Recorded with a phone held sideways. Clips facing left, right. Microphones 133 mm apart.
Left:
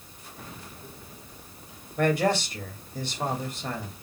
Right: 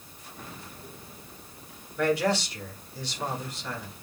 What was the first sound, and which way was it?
A man speaking, 55° left (ahead or behind).